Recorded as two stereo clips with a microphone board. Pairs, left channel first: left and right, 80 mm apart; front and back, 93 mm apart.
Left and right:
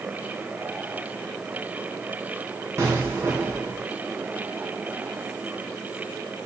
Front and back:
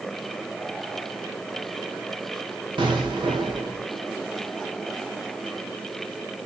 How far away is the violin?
I don't hear a violin.